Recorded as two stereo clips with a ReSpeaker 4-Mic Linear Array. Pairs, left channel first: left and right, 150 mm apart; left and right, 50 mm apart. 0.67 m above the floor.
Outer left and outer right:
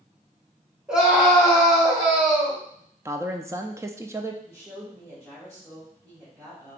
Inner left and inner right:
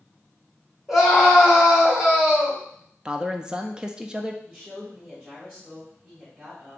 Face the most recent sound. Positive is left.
turn(degrees=-25)  # may be behind; listen again after turning